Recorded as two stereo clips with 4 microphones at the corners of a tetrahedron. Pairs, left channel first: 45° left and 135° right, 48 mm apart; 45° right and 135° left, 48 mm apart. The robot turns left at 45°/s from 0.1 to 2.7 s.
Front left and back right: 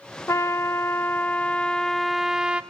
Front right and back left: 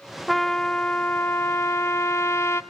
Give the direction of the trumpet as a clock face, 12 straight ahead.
11 o'clock.